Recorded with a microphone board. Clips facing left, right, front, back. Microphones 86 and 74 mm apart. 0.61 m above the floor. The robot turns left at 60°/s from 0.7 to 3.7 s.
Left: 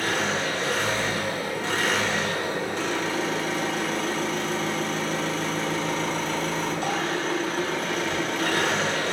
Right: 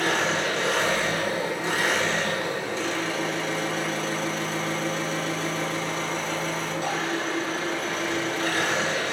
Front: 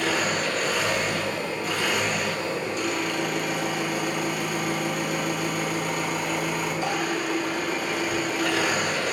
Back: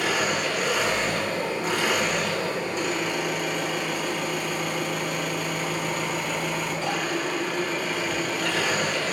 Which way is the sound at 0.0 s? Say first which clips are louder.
Right 2 dB, even; 105° right.